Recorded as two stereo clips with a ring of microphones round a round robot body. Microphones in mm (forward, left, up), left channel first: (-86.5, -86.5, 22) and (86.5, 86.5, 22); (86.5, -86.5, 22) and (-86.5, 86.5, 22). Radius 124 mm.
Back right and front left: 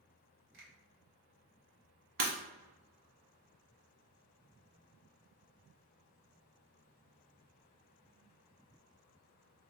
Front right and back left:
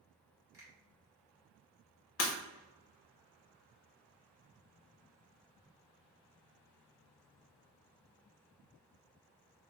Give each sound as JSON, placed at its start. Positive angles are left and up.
{"t": 0.5, "sound": "a finger snap", "azimuth_deg": 60, "distance_m": 1.4}
{"t": 2.2, "sound": "breaking glass", "azimuth_deg": -10, "distance_m": 1.2}